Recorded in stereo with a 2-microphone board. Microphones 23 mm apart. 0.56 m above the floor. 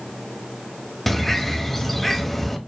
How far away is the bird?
About 0.6 m.